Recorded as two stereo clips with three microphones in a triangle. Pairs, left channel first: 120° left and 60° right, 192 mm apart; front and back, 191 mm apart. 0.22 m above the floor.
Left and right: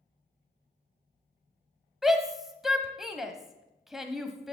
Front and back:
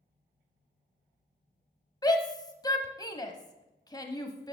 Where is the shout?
25° left, 1.0 m.